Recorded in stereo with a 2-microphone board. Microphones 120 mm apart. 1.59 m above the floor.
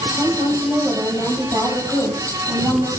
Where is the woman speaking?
25° right (ahead or behind), 9.5 m.